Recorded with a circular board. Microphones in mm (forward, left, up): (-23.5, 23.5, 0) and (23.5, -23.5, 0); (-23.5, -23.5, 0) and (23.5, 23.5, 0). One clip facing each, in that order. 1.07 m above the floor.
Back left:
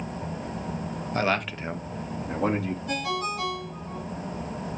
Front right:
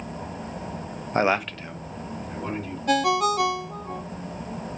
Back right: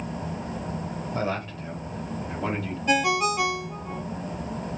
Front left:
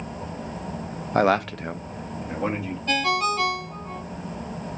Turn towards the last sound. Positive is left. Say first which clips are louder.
# front right 11 dB, back right 1 dB
turn(degrees=-60)